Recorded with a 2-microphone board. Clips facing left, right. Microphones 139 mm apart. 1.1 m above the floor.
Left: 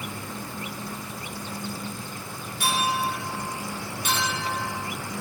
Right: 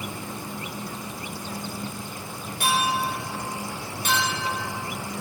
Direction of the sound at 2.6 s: 50° right (ahead or behind).